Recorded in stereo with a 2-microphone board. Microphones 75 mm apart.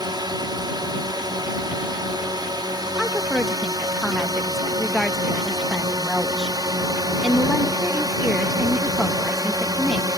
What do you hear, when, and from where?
0.0 s a drone: 70° right (ahead or behind); by 10.2 s 55° right (ahead or behind)
3.0 s a woman speaking: centre (ahead or behind)